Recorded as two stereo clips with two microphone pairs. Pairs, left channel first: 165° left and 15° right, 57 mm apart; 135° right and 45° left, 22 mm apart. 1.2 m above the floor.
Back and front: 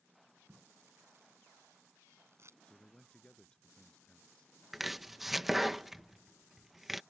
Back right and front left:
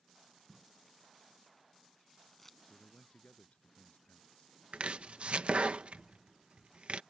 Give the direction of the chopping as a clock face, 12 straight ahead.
10 o'clock.